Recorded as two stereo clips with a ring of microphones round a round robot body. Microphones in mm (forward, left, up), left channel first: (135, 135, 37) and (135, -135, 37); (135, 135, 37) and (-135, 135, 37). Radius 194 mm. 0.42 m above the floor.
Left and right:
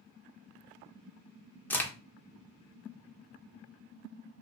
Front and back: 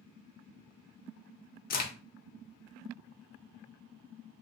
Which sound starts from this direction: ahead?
A crack, at 1.7 s.